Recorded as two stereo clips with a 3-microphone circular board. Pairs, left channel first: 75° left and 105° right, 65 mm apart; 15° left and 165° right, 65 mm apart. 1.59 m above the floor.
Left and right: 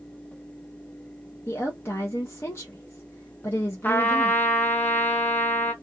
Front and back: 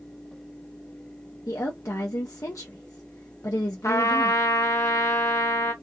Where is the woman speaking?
35° left, 0.7 m.